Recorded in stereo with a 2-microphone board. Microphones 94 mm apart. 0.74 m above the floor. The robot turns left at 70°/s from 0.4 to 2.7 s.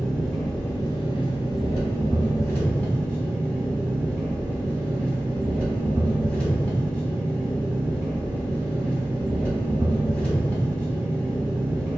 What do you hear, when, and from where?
0.0 s an engine running: 175° left, 1.2 m; by 12.0 s 15° left, 1.2 m